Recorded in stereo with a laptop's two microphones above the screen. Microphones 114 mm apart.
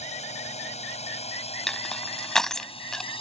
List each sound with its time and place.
0.0 s a drone: 80° left; by 3.2 s 50° left (ahead or behind)
1.7 s crushing: 5° left (ahead or behind)